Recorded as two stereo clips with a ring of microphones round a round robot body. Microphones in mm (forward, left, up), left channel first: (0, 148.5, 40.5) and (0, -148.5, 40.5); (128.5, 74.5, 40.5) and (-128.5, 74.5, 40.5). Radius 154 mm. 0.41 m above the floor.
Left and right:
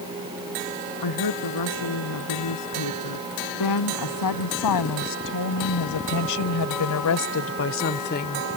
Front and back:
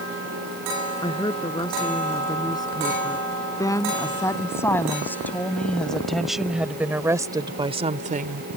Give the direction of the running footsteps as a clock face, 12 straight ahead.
No running footsteps in this recording.